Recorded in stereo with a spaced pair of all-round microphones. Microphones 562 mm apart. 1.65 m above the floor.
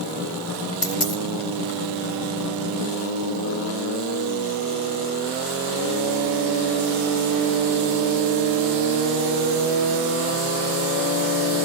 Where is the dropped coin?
65° left (ahead or behind).